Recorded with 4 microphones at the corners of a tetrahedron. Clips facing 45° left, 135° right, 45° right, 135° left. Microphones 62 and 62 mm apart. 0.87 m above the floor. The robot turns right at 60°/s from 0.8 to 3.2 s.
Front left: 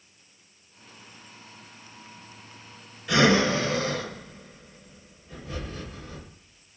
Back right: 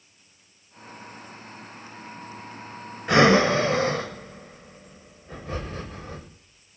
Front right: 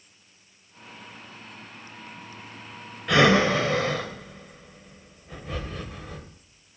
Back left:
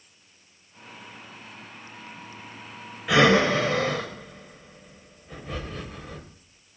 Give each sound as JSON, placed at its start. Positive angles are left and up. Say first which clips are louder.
{"t": 3.1, "sound": "breathing", "louder": "back right 4 dB, even", "azimuth_deg": -140, "distance_m": 0.7}